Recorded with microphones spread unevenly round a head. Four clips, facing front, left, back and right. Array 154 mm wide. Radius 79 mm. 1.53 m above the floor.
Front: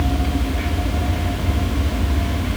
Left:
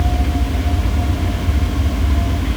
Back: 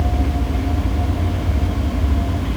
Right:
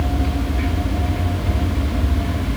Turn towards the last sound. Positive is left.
No sound to turn to.